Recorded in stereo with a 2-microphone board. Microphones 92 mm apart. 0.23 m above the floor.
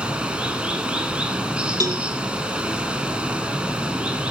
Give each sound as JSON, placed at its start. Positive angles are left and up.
{"t": 0.0, "sound": "running water", "side_deg": -10, "distance_m": 0.9}
{"t": 1.8, "sound": "a cowbell", "side_deg": -40, "distance_m": 0.7}